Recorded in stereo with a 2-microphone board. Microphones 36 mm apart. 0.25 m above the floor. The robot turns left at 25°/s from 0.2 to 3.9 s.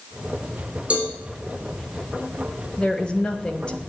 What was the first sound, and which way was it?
A cowbell, 40° right (ahead or behind).